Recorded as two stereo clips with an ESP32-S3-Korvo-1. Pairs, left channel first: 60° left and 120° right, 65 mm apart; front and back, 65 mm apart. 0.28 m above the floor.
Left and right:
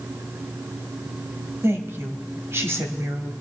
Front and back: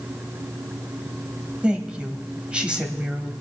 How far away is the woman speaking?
About 1.5 m.